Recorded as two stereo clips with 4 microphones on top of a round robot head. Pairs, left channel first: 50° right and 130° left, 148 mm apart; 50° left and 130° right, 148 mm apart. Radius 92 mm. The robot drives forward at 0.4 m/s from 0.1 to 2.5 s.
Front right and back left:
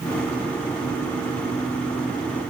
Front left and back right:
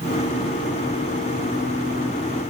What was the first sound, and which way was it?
Only background noise.